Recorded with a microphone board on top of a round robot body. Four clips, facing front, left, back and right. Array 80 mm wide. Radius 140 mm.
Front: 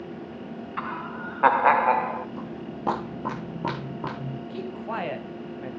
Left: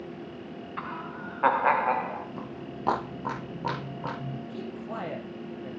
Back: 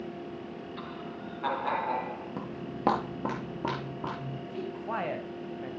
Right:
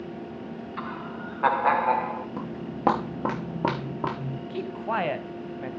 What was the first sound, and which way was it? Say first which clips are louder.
Laughter: right 1 dB, front 7 dB; straight ahead.